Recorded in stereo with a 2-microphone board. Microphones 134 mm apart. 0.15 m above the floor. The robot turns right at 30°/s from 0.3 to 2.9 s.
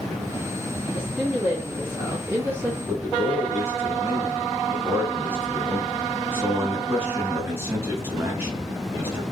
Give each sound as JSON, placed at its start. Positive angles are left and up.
{"t": 0.9, "sound": "a woman speaking", "side_deg": -5, "distance_m": 1.1}
{"t": 2.9, "sound": "a man speaking", "side_deg": -20, "distance_m": 1.5}